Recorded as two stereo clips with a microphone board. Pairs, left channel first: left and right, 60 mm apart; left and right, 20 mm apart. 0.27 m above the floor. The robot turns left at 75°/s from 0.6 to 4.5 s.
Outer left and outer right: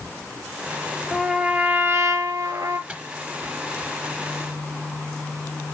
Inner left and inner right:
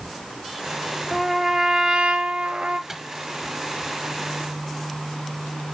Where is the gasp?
I don't hear a gasp.